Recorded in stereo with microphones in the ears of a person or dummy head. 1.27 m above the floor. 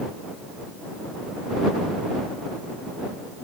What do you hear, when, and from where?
Only background noise.